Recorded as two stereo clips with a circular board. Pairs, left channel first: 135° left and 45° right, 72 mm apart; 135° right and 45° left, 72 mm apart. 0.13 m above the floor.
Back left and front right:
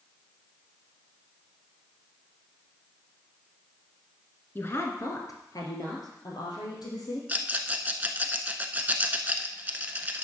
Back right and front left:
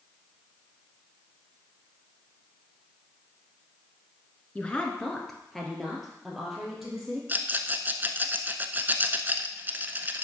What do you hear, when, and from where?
4.5 s a woman speaking: 165° left, 1.3 m; by 7.2 s 130° left, 3.5 m
7.3 s a rattle: 5° left, 0.6 m